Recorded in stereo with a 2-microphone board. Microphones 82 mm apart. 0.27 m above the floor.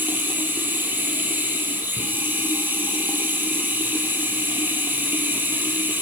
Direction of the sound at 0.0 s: 25° right (ahead or behind).